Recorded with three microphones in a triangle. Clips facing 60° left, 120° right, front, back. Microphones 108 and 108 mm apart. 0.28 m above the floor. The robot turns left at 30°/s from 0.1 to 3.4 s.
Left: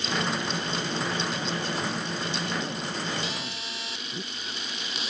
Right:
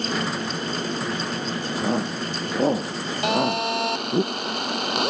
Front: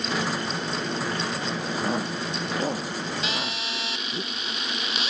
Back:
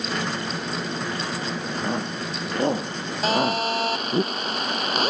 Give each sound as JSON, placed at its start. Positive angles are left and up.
{"t": 1.8, "sound": "a shout", "azimuth_deg": -85}
{"t": 3.2, "sound": "a phone buzzing", "azimuth_deg": -135}